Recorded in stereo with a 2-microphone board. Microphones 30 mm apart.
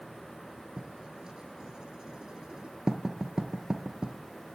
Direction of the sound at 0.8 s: 25° right (ahead or behind).